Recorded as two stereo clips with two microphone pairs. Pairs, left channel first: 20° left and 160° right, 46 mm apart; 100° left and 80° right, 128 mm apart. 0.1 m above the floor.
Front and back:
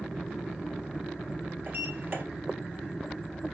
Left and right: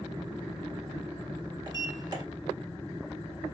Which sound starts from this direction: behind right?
A sliding door, at 1.7 s.